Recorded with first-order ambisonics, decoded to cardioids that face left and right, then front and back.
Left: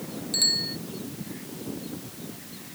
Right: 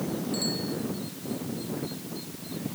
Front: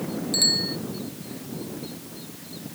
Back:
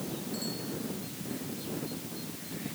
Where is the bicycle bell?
35° left.